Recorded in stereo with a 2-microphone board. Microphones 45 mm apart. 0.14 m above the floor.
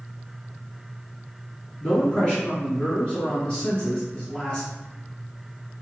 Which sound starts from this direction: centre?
A man speaking, at 1.8 s.